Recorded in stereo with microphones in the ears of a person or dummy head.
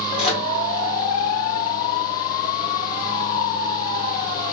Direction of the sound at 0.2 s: 30° left (ahead or behind).